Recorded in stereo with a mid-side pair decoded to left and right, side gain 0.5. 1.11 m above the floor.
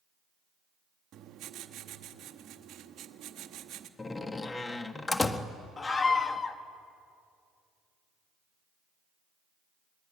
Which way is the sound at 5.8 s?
30° left.